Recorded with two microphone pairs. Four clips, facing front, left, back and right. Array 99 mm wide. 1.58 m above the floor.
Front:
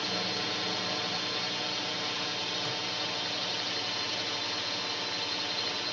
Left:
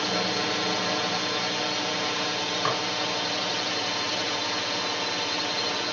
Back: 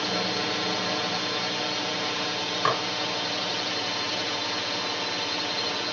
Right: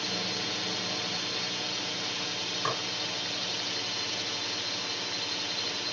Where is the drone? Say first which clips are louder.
Left 8 dB, back 6 dB; 115° left.